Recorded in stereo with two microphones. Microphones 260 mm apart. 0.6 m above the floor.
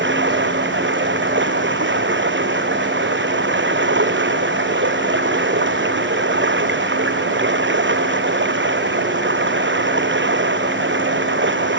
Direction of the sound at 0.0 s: 45° right (ahead or behind).